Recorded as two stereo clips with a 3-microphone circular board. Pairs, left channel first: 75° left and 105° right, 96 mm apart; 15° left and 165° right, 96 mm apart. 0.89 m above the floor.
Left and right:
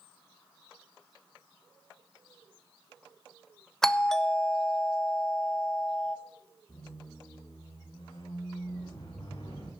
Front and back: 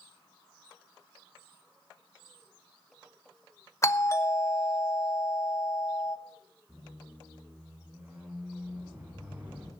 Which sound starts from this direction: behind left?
A squeak, at 6.7 s.